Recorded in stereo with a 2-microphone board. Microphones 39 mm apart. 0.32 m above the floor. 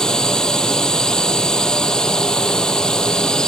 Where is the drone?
20° left (ahead or behind).